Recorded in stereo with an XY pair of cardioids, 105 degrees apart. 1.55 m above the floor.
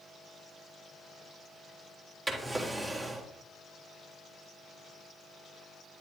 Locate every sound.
2.3 s a drawer: 20° right, 3.5 m